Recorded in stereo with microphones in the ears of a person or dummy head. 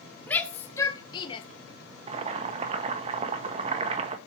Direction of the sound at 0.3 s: 10° left (ahead or behind).